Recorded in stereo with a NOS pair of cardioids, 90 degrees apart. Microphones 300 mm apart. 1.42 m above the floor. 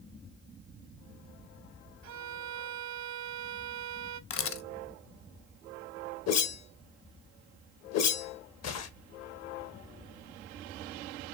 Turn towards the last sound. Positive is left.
turn(degrees=60)